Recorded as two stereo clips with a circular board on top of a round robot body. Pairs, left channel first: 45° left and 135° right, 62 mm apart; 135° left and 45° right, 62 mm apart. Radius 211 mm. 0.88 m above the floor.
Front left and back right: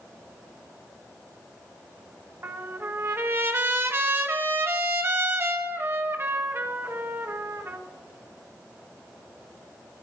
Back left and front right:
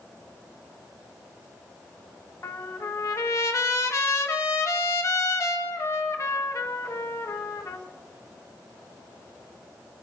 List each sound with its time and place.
2.4 s a trumpet: 175° left, 1.6 m